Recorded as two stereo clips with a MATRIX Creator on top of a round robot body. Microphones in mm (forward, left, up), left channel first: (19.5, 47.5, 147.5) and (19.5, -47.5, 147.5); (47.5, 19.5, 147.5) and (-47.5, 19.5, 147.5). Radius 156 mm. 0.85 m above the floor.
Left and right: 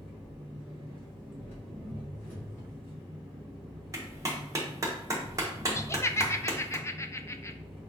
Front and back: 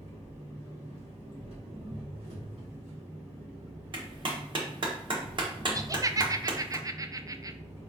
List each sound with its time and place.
0.0 s an engine running: 165° left, 2.0 m
3.9 s a clap: 145° right, 1.0 m
5.8 s laughter: 140° left, 0.5 m